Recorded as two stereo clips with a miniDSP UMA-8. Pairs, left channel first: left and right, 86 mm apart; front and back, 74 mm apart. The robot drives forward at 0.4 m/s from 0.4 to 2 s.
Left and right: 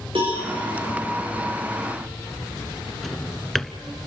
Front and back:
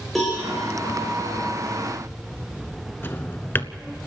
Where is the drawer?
5° left, 0.8 m.